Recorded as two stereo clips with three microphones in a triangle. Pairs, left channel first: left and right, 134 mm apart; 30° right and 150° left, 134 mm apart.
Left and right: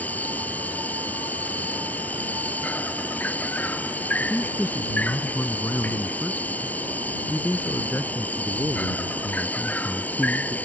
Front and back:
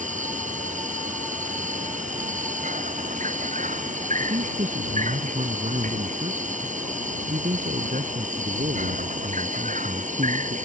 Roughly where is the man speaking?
Behind.